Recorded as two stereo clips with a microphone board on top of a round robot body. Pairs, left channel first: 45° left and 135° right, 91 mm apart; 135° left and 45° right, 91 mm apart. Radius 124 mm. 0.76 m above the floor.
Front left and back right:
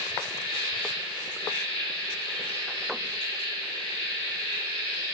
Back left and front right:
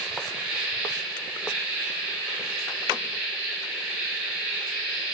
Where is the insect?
35° left, 2 m.